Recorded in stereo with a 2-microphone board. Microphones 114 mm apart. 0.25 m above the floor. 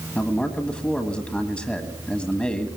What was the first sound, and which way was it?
A man speaking, 10° left (ahead or behind).